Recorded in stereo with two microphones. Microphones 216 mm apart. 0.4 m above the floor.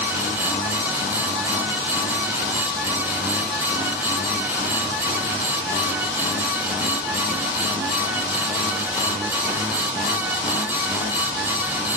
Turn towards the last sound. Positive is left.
No sound to turn to.